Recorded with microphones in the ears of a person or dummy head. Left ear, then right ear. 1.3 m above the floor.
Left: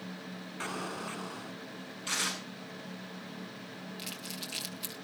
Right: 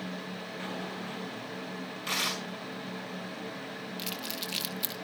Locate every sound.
0.6 s an explosion: 40° left (ahead or behind), 2.5 m
2.1 s tearing paper: 20° right (ahead or behind), 5 m
4.0 s crumpling: 10° right (ahead or behind), 1.7 m